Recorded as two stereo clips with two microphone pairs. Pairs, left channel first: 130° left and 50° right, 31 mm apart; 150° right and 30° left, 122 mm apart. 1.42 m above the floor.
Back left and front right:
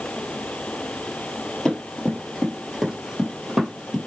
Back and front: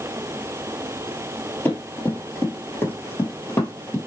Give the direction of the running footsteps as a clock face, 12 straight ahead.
6 o'clock.